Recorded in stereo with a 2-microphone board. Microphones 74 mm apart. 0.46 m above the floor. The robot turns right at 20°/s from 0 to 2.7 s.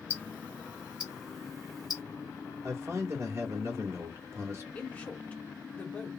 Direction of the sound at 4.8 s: 20° left (ahead or behind).